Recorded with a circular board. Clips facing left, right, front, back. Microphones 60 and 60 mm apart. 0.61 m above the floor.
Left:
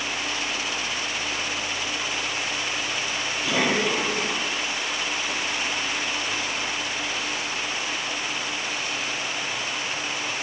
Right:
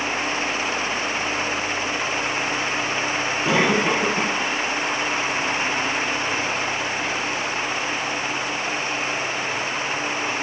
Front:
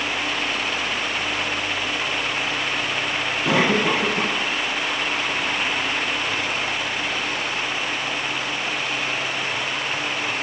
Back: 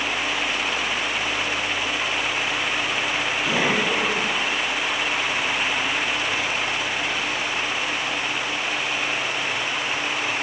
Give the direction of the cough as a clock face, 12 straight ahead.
1 o'clock.